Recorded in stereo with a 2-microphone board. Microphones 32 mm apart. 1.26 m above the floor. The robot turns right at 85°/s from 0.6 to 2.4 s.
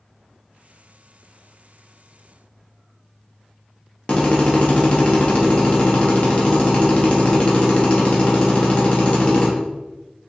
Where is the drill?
40° left (ahead or behind), 1.0 m.